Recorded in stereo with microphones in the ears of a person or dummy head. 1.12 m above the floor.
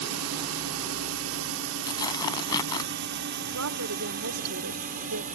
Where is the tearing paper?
25° left (ahead or behind).